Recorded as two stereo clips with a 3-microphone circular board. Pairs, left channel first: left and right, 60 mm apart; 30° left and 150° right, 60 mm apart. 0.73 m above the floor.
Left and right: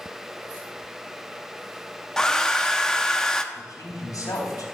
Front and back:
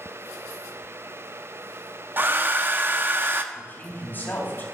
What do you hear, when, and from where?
2.2 s a hair dryer: 170° left, 0.8 m
3.5 s a man speaking: 85° left, 4 m